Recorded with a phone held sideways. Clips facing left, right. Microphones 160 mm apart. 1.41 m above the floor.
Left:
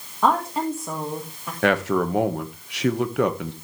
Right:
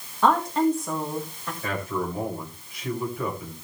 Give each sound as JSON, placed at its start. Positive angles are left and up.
{"t": 0.2, "sound": "a woman speaking", "side_deg": 10, "distance_m": 2.0}
{"t": 1.6, "sound": "a man speaking", "side_deg": 80, "distance_m": 1.5}